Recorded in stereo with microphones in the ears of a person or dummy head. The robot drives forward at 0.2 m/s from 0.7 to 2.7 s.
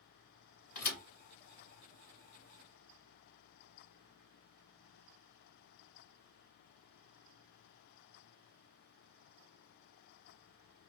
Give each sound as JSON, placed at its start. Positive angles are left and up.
{"t": 0.8, "sound": "a thud", "side_deg": 50, "distance_m": 1.9}